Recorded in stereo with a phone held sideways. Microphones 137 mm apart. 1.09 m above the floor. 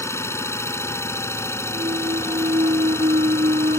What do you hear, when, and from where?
0.0 s an engine running: 20° left (ahead or behind)
1.7 s a clunk: 60° right (ahead or behind)